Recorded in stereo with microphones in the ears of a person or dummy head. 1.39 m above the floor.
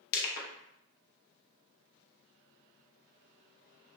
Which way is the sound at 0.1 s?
55° left (ahead or behind).